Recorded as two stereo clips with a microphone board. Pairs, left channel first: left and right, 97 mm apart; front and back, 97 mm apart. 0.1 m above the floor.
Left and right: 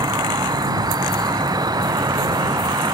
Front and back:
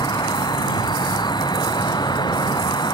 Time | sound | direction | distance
0.0 | an insect | 40° right | ?